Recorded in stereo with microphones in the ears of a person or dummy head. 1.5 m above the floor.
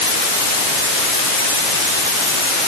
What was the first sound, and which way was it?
Only background noise.